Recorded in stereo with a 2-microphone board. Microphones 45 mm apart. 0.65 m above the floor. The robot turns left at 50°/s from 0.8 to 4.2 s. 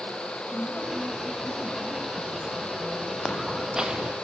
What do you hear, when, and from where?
0.5 s a woman speaking: 50° left, 4 m; by 3.1 s 65° right, 4 m
3.2 s footsteps: 10° left, 1.6 m; by 4.2 s 35° right, 1.6 m